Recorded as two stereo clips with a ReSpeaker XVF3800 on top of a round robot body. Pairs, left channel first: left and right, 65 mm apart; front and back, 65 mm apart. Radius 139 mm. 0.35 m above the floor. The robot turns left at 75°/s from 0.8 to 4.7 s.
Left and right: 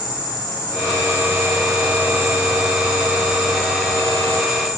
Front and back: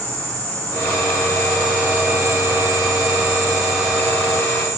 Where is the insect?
65° left, 2.5 m; by 4.8 s 135° left, 2.5 m.